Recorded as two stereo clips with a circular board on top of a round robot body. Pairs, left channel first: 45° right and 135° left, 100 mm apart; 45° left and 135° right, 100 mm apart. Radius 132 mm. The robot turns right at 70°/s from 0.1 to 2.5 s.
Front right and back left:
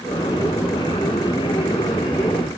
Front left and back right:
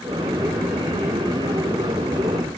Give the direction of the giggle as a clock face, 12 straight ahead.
No giggle in this recording.